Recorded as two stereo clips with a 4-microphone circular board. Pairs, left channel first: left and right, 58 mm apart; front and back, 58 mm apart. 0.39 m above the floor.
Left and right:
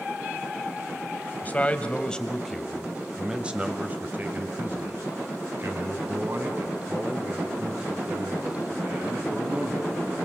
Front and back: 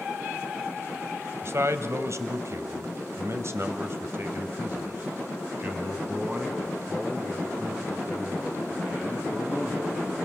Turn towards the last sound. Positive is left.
turn(degrees=-100)